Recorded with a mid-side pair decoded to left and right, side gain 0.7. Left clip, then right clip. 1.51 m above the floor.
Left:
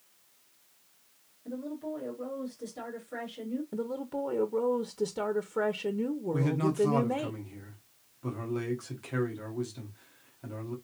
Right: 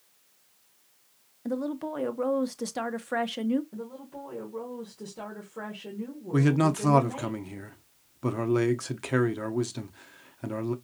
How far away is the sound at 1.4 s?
About 0.8 m.